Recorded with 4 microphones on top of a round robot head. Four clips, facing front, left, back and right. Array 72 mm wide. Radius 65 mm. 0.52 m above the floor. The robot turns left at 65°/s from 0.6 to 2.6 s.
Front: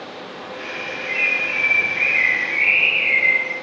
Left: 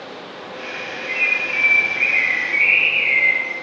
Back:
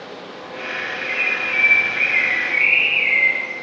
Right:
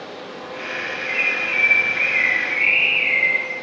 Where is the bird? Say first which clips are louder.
Left 2 dB, front 2 dB; 90° right, 1.2 m; by 3.5 s 170° left, 1.2 m.